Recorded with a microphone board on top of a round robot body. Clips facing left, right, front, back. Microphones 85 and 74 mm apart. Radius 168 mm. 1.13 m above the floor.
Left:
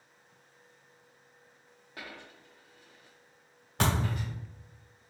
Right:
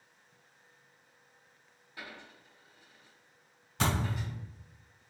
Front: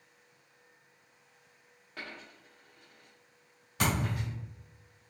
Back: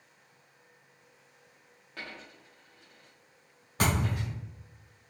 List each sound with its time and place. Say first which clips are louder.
2.0 s a dropped coin: left 1 dB, back 1 dB; 85° left, 0.6 m
3.8 s a thud: left 2 dB, back 2 dB; 130° left, 1.3 m